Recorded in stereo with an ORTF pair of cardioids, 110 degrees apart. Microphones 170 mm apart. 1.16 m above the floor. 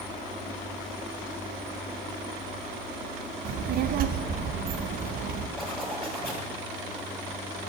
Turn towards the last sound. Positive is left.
turn(degrees=5)